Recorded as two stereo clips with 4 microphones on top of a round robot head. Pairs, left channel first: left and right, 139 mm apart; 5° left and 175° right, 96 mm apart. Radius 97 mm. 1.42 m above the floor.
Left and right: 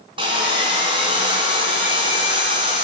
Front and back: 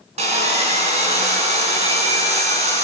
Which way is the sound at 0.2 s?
155° right.